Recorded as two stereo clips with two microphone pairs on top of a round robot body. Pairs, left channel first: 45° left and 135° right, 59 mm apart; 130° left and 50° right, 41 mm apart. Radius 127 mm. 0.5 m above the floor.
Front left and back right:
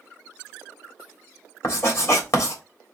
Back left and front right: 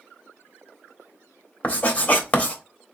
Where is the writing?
85° left, 1.8 m.